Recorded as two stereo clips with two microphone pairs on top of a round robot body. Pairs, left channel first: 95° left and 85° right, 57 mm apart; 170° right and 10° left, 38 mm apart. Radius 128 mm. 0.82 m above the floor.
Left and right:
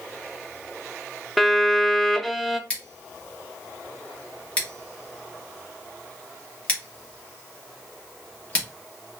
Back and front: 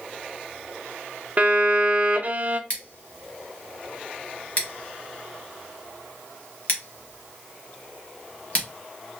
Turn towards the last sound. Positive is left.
turn(degrees=165)